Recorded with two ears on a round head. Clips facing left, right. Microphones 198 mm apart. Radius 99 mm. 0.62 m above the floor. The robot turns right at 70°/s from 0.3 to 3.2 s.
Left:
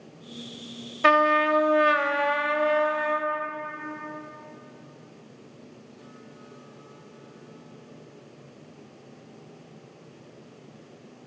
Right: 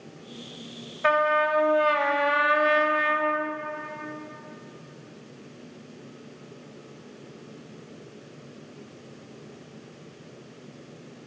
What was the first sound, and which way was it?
A trumpet, 95° left.